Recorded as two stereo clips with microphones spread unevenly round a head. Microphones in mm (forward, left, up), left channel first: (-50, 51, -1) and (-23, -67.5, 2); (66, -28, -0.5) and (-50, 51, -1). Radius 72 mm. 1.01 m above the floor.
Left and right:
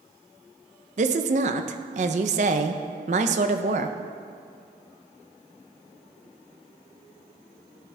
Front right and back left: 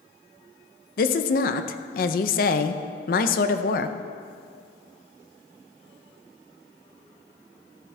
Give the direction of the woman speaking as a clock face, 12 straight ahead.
2 o'clock.